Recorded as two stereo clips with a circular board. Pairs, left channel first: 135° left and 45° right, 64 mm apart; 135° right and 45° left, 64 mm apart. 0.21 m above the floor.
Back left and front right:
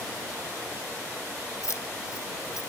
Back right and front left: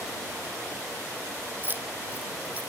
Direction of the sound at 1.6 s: 100° left.